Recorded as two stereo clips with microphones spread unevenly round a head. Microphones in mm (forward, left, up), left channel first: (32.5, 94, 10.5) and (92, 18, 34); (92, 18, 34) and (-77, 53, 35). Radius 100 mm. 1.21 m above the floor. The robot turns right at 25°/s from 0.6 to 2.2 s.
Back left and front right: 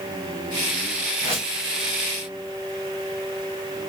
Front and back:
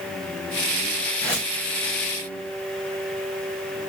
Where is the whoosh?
90° right, 3 m; by 1.5 s 85° right, 3 m.